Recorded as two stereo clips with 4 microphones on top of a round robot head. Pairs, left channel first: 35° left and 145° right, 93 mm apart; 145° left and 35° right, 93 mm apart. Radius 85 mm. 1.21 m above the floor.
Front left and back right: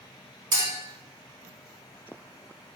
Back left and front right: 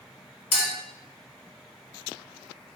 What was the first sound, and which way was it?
A clink, 175° left.